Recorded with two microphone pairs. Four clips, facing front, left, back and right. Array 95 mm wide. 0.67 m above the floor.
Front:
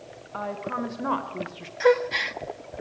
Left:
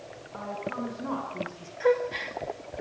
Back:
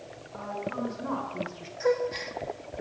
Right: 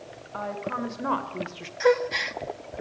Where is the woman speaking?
40° right, 3 m; by 1.7 s 70° right, 1.3 m.